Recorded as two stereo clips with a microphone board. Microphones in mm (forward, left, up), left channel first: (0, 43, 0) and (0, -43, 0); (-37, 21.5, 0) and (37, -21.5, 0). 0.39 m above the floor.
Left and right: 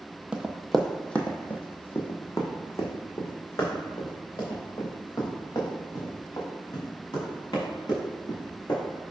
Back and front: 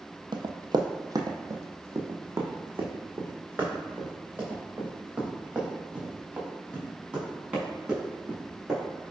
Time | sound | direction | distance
0.3 | running footsteps | 15° right | 0.7 m